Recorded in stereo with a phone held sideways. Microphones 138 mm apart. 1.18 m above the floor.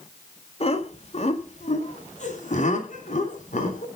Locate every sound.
0.6 s laughter: 45° left (ahead or behind), 1.9 m; by 3.9 s 65° left (ahead or behind), 4 m